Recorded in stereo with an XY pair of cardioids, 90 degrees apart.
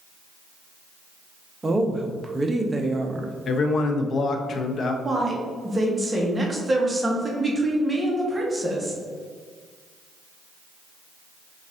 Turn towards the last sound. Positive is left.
turn(degrees=-15)